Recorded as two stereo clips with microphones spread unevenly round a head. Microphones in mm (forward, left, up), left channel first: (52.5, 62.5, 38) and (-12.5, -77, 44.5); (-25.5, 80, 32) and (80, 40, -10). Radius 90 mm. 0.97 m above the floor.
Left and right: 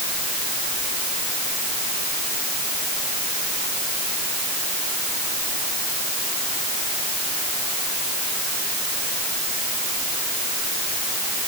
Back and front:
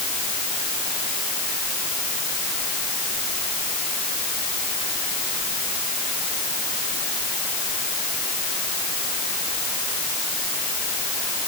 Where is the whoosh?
I don't hear a whoosh.